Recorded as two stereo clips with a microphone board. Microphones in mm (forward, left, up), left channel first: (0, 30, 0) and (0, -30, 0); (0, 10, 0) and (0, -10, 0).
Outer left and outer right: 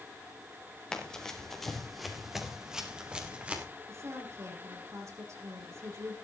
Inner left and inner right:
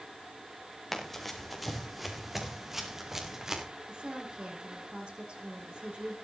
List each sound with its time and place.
0.9 s running footsteps: 10° left (ahead or behind), 4 m; by 3.6 s 25° right (ahead or behind), 4 m
3.9 s a woman speaking: 50° right (ahead or behind), 10 m